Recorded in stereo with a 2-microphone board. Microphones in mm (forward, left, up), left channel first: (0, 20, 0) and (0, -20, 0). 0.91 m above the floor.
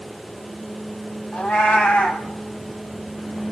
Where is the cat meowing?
40° left (ahead or behind), 1.9 m.